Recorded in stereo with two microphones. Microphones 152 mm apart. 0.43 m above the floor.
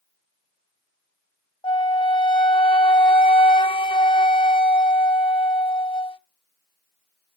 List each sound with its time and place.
1.6 s a flute: 35° left (ahead or behind), 0.5 m